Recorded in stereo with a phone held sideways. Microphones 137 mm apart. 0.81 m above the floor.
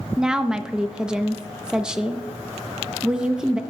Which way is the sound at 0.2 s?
5° right (ahead or behind).